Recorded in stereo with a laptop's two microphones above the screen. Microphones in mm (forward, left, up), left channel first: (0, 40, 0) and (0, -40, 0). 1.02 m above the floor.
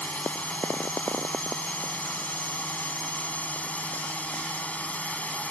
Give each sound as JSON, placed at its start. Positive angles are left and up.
{"t": 0.0, "sound": "a drone", "side_deg": 20}